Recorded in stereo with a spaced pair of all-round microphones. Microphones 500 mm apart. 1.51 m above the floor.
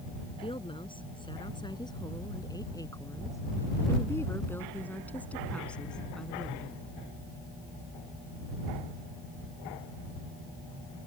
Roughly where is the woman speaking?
Centre.